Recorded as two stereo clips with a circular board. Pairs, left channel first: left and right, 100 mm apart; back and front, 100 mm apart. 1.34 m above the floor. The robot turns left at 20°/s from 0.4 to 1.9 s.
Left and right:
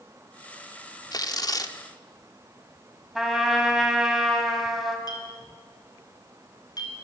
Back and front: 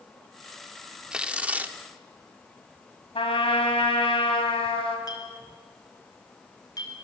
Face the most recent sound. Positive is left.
turn(degrees=135)